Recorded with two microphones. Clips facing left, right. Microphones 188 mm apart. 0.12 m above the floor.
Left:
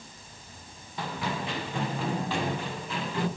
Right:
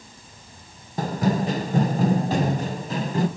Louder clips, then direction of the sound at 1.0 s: Right 10 dB; 40° right (ahead or behind).